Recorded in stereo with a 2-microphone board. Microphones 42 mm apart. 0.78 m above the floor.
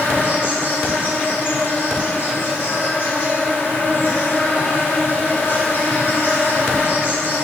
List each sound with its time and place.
0.0 s an insect: 60° left (ahead or behind), 3.5 m